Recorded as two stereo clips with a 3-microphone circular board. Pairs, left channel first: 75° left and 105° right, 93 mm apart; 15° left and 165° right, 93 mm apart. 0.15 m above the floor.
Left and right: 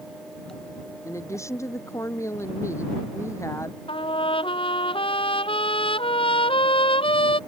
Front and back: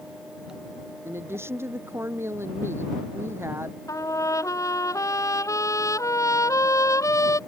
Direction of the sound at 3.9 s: 70° left.